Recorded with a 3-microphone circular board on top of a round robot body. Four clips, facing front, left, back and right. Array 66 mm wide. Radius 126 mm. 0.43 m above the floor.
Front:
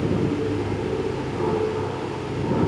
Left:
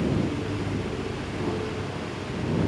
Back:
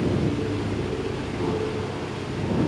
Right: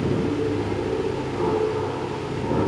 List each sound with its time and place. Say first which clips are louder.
0.0 s an aircraft: right 4 dB, front 2 dB; 65° right; by 2.7 s 60° right